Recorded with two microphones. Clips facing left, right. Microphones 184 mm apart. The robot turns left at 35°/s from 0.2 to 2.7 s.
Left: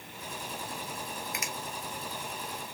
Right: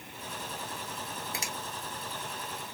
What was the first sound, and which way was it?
A finger snap, 30° right (ahead or behind).